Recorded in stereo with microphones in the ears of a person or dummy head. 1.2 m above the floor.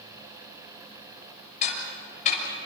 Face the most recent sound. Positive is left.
turn(degrees=40)  # may be behind; listen again after turning